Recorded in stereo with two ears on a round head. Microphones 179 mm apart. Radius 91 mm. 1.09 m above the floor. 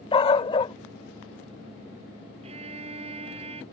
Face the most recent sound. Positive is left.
turn(degrees=-30)  # may be behind; listen again after turning